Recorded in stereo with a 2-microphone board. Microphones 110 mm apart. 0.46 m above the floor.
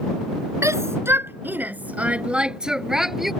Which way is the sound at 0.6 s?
25° right (ahead or behind).